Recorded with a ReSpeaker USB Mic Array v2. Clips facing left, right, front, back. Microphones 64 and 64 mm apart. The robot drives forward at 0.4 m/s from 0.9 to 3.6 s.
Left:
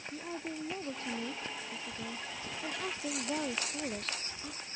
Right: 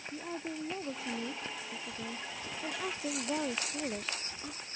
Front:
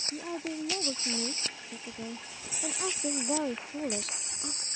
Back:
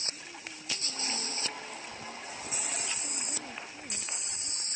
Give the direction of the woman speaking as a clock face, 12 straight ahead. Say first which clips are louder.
Right 1 dB, front 11 dB; 12 o'clock.